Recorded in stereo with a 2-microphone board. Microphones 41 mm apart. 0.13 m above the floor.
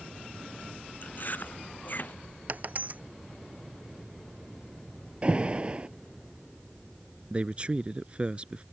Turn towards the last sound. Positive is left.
turn(degrees=-30)  # may be behind; listen again after turning